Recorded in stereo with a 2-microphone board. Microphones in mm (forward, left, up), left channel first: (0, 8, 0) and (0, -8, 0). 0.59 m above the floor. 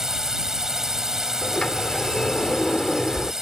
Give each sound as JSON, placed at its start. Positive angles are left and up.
{"t": 0.0, "sound": "a drone", "side_deg": -35}
{"t": 1.4, "sound": "a sliding door", "side_deg": 50}